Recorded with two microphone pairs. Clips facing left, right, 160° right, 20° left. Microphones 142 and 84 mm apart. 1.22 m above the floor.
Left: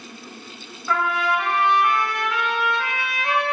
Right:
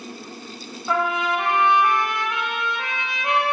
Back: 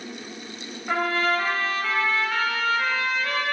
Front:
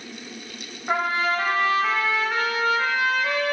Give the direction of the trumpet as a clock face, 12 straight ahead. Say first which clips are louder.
Even, even; 1 o'clock.